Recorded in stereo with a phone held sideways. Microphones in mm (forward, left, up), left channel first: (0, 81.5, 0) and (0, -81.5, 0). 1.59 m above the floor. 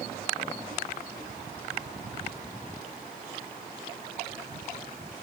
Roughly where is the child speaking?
I don't hear a child speaking.